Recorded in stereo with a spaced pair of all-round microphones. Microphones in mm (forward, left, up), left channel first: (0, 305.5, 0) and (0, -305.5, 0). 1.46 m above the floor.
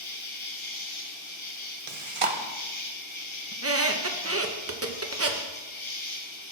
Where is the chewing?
55° right (ahead or behind), 0.8 m.